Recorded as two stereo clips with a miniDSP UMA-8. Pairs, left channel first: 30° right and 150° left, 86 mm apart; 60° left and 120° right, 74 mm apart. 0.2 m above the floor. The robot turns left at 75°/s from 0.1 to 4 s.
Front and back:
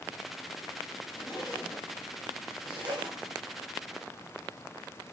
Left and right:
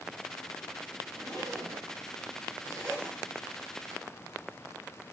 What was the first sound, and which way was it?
A zipper, 50° right.